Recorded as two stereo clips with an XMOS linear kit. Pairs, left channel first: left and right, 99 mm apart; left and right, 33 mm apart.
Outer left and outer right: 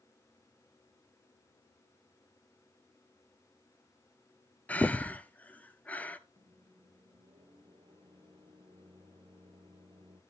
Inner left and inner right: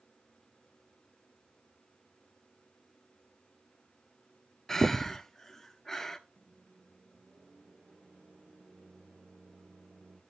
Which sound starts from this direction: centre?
Breathing, at 4.7 s.